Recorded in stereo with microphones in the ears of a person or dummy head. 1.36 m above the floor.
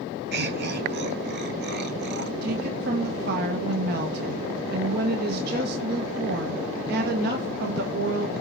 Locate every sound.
0.3 s laughter: 55° right (ahead or behind), 1.1 m
2.4 s a woman speaking: 50° right (ahead or behind), 1.2 m